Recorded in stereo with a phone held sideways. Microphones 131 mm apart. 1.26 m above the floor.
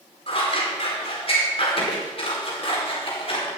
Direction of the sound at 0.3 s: 45° left (ahead or behind).